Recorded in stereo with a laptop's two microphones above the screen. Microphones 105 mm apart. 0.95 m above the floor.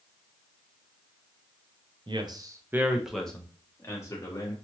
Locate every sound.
2.1 s a man speaking: 50° right (ahead or behind), 0.6 m; by 4.5 s 35° left (ahead or behind), 1.2 m